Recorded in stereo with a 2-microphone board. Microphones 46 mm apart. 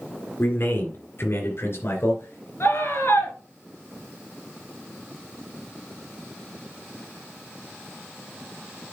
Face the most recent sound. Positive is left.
turn(degrees=60)  # may be behind; listen again after turning